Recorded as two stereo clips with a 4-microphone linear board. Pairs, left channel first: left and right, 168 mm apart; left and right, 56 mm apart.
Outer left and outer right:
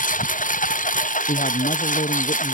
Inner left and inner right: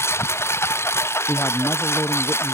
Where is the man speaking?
45° left (ahead or behind).